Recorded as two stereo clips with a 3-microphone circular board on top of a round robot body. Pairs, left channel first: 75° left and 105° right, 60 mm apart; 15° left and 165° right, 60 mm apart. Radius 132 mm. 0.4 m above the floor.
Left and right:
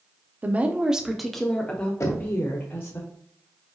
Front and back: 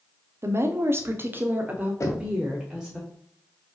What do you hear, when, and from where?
0.4 s a woman speaking: 155° right, 1.2 m; by 3.0 s 110° left, 1.7 m
2.0 s knocking: 50° left, 1.7 m